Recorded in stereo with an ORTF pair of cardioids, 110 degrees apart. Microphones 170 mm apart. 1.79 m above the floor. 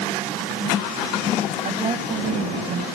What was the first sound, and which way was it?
A woman speaking, 45° right.